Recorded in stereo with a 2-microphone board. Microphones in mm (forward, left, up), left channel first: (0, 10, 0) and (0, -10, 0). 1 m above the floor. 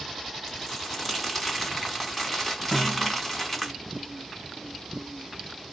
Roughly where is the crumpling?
Centre.